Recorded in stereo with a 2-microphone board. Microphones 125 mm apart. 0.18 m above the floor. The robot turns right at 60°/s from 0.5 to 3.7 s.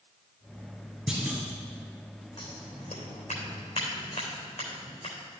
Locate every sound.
1.1 s a clunk: 10° right (ahead or behind), 3 m; by 1.4 s 30° right (ahead or behind), 3 m
2.4 s scissors: 35° left (ahead or behind), 3.5 m; by 5.2 s 65° left (ahead or behind), 3.5 m